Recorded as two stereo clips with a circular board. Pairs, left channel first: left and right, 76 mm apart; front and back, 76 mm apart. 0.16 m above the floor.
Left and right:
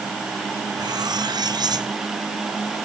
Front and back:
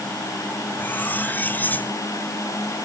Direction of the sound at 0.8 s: 65° right.